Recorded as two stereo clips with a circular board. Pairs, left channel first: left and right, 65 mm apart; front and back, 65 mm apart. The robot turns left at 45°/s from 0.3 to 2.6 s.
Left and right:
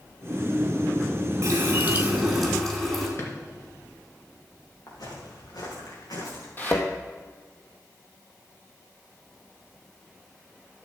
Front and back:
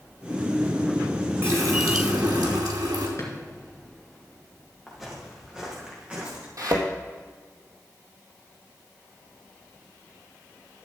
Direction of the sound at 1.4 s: 130° right.